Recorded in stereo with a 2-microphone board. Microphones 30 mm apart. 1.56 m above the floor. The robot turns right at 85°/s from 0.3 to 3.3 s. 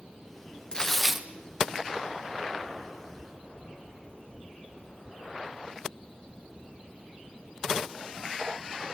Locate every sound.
0.7 s tearing paper: 155° left, 1.0 m; by 1.3 s 155° right, 1.0 m